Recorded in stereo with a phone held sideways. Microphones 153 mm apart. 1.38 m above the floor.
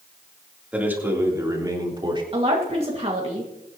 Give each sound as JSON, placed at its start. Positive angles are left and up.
{"t": 0.7, "sound": "a man speaking", "side_deg": -10, "distance_m": 3.0}
{"t": 2.3, "sound": "a woman speaking", "side_deg": -40, "distance_m": 1.9}